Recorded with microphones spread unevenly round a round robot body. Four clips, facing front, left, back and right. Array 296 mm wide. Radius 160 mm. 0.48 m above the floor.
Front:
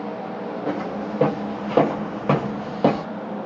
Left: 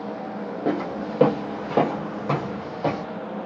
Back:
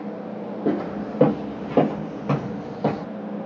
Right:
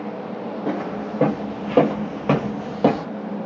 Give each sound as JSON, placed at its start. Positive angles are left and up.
{"t": 0.7, "sound": "footsteps", "azimuth_deg": 165, "distance_m": 0.8}